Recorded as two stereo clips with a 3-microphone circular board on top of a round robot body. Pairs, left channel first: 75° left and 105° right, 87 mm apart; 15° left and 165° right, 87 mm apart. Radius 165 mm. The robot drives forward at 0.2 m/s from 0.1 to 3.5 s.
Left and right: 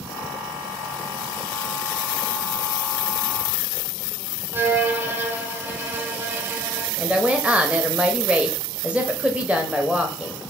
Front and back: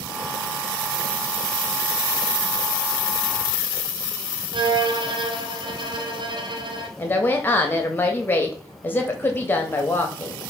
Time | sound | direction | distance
4.5 | a violin | 165° right | 0.9 m
7.0 | a woman speaking | 35° right | 0.9 m